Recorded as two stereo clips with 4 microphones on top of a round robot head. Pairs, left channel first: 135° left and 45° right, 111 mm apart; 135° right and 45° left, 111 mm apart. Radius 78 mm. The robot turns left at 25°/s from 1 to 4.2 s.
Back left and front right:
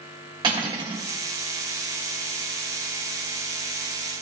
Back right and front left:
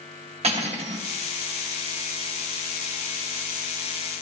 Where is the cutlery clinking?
10° left, 1.5 m.